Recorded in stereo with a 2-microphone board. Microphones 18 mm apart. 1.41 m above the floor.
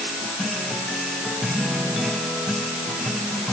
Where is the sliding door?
No sliding door in this recording.